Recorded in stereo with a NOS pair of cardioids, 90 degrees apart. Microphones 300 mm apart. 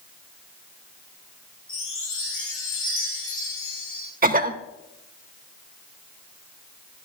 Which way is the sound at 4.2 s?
30° right.